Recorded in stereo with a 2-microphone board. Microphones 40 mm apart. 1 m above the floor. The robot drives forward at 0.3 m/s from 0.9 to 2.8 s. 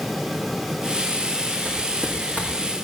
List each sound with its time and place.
1.6 s footsteps: 40° right (ahead or behind), 4.5 m